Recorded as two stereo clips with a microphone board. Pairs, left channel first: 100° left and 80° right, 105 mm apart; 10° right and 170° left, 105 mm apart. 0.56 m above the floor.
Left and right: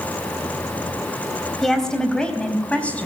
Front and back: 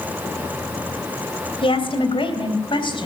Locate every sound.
1.6 s a woman speaking: 15° left, 3 m; by 3.1 s 25° left, 4 m